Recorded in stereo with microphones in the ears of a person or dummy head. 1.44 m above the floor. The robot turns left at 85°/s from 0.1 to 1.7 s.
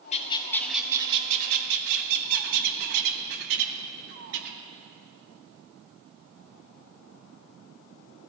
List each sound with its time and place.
0.1 s a bird: 55° left, 0.9 m; by 4.6 s 80° right, 0.9 m